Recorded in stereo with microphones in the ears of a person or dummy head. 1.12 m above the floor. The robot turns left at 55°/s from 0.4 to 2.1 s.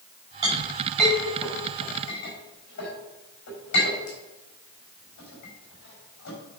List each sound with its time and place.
0.4 s a clink: 30° right (ahead or behind), 4.5 m; by 6.4 s 60° left (ahead or behind), 4.5 m